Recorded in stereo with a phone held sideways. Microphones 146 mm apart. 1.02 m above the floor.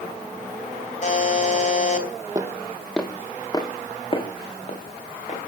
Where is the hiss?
No hiss in this recording.